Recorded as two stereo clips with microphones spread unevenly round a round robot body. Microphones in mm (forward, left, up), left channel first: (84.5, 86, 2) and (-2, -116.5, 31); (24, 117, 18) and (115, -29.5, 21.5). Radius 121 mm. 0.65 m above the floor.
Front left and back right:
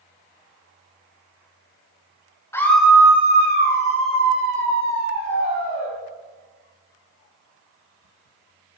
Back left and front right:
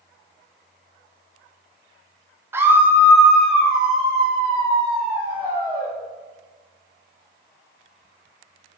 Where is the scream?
10° left, 0.6 m; by 5.9 s 155° right, 2.0 m.